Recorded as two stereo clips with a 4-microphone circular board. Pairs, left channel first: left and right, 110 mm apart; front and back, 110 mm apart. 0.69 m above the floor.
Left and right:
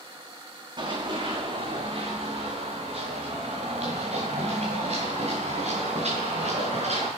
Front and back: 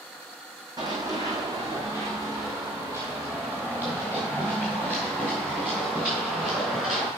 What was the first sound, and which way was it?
Running footsteps, 130° right.